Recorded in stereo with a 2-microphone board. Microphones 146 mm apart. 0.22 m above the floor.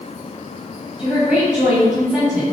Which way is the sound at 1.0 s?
5° right (ahead or behind).